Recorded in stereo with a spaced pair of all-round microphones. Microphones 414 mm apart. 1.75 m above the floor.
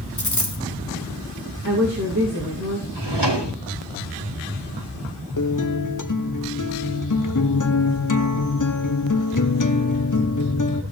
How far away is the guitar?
About 0.8 m.